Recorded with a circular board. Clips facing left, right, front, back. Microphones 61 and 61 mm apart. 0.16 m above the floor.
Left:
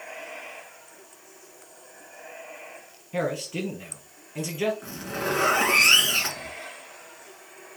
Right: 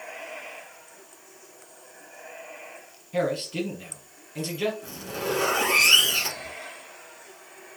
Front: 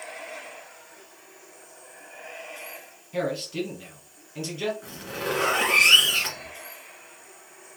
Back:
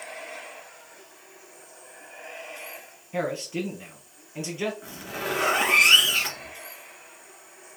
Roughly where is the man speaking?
Behind left.